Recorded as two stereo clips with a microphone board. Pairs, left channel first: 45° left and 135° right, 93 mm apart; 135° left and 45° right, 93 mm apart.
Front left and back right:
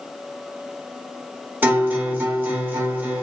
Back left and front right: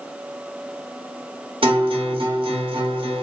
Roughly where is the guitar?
Right.